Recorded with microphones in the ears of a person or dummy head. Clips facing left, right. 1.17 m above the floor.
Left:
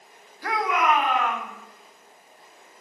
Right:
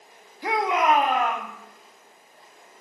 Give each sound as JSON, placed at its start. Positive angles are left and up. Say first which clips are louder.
{"t": 0.4, "sound": "a shout", "louder": "right 2 dB", "side_deg": -10, "distance_m": 1.5}